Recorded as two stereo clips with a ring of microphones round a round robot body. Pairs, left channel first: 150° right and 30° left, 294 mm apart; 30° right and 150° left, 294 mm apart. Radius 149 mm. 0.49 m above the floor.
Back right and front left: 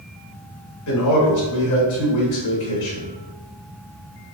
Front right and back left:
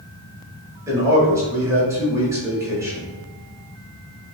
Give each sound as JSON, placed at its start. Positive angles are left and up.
{"t": 0.9, "sound": "a man speaking", "azimuth_deg": -130, "distance_m": 1.9}